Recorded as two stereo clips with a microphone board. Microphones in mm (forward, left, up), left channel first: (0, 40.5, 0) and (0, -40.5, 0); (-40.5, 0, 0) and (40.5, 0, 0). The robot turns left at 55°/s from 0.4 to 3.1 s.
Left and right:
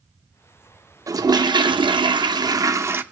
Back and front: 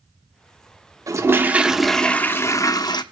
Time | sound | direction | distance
1.1 | a toilet flushing | 45° right | 0.8 m